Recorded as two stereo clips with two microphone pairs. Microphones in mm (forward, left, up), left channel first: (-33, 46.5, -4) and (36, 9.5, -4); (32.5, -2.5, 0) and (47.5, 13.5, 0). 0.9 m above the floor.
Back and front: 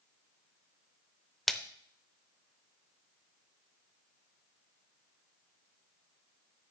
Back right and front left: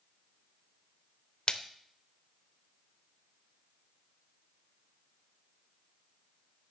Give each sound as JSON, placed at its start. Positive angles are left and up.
{"t": 1.5, "sound": "a splash", "azimuth_deg": -125, "distance_m": 0.7}